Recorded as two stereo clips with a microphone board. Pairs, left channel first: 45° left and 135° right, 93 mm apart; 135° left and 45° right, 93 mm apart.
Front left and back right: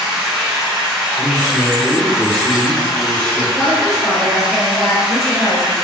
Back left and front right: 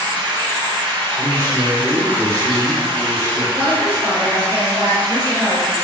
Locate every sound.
0.0 s running water: 50° right, 1.0 m
1.2 s a man speaking: 25° right, 1.6 m
3.6 s a woman speaking: 20° left, 1.5 m